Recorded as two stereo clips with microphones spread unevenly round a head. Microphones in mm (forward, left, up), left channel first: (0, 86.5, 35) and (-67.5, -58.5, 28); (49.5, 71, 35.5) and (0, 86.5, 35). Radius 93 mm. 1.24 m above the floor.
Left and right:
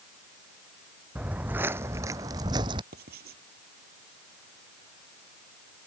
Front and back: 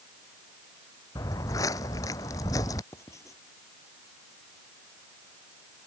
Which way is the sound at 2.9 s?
75° right.